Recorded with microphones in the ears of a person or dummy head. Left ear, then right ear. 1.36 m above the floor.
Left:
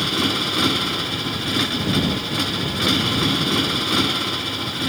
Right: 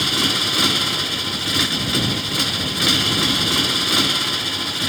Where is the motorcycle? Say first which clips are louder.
Right 2 dB; 20° right (ahead or behind).